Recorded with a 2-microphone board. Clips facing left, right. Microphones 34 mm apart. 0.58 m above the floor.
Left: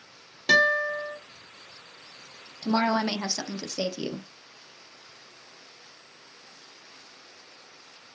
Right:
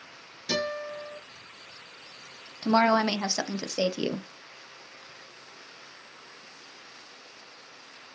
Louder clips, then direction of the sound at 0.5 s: Left 10 dB; 70° left (ahead or behind).